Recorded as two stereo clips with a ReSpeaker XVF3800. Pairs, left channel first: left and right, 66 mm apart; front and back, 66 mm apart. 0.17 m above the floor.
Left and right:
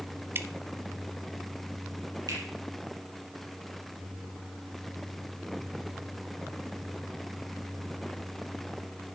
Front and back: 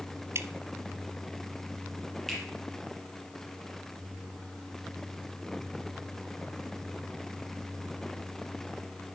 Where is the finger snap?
85° right, 4.5 m.